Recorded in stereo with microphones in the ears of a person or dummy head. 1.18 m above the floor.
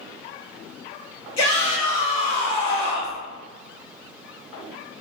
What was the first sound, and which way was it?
A shout, 20° left (ahead or behind).